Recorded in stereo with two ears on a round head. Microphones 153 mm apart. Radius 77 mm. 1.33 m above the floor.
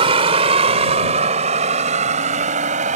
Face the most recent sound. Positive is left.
turn(degrees=-45)  # may be behind; listen again after turning